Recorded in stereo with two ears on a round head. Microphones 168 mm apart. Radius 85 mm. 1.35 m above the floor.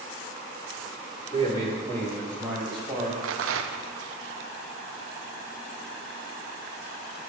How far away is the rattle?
About 0.5 m.